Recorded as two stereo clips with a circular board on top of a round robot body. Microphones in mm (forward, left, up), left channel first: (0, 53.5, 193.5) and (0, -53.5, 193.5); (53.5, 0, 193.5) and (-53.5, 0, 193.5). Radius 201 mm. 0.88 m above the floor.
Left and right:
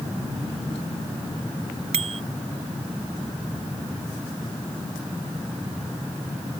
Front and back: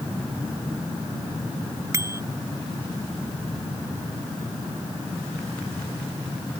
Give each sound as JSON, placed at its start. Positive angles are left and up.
{"t": 1.9, "sound": "a bicycle bell", "azimuth_deg": -115}